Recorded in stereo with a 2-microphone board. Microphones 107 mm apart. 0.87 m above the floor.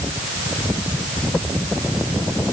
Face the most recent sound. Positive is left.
No sound to turn to.